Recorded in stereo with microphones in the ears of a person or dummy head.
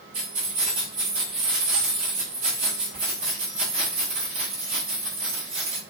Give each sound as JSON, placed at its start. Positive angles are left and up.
{"t": 0.1, "sound": "keys jangling", "side_deg": -40, "distance_m": 1.3}